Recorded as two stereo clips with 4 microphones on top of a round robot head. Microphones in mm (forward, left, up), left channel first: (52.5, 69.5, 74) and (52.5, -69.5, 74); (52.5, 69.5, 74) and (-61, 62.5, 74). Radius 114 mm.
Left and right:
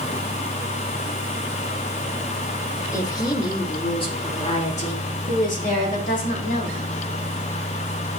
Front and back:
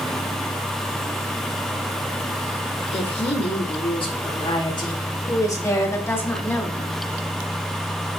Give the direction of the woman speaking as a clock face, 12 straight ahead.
11 o'clock.